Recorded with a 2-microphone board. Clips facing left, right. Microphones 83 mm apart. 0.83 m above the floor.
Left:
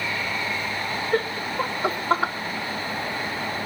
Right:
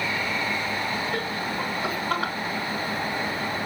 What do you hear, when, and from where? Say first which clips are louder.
1.1 s laughter: left 4 dB; 40° left (ahead or behind), 3 m; by 2.3 s 25° left (ahead or behind), 2.5 m